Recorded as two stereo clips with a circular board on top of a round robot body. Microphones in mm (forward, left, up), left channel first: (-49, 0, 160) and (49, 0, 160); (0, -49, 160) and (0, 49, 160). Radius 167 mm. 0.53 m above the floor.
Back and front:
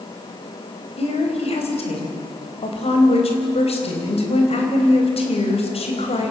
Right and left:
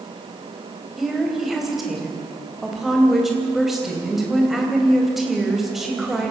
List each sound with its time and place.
1.0 s a woman speaking: 175° left, 4 m